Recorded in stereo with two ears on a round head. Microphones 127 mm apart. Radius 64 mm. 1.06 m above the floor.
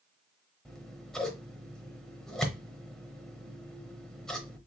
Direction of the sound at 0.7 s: 5° left (ahead or behind).